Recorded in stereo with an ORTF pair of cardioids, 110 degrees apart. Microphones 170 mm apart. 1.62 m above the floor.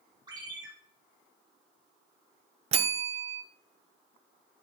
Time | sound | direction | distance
0.3 | a ringtone | 25° right | 4 m
2.7 | a bell | 35° right | 0.7 m